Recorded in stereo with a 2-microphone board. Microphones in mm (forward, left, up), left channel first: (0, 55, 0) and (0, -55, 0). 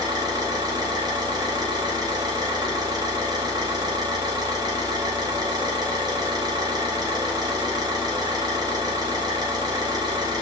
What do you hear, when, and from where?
0.0 s an engine running: 40° right (ahead or behind), 0.9 m